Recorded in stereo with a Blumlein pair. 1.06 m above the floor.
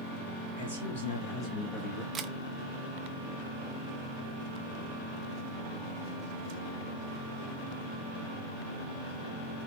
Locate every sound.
0.6 s a man speaking: 65° left, 1.5 m; by 2.0 s 5° right, 1.2 m
2.1 s a camera shutter: 20° right, 0.6 m